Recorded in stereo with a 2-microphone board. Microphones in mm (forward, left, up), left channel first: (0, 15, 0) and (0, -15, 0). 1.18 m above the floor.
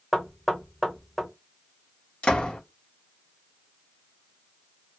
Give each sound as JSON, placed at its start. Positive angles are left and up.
{"t": 0.1, "sound": "knocking", "side_deg": 0, "distance_m": 0.9}
{"t": 2.2, "sound": "a door slam", "side_deg": 40, "distance_m": 1.0}